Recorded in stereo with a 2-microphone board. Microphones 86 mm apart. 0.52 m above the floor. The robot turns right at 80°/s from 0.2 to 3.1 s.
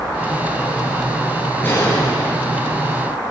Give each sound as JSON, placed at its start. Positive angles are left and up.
{"t": 1.6, "sound": "a gunshot", "azimuth_deg": 20, "distance_m": 9.5}